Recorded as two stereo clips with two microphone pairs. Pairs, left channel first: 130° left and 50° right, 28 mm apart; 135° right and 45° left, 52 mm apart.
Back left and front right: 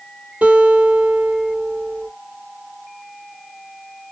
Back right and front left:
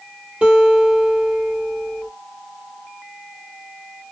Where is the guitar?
20° right, 1.9 m.